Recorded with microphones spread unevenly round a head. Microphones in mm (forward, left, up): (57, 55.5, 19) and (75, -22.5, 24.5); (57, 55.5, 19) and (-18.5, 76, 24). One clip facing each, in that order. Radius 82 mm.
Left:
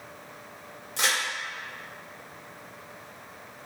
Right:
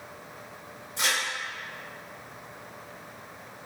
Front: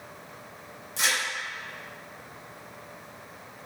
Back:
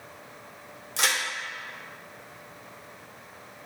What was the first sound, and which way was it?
A crack, 150° left.